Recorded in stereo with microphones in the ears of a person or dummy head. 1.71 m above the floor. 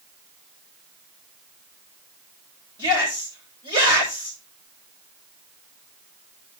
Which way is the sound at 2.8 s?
25° right (ahead or behind).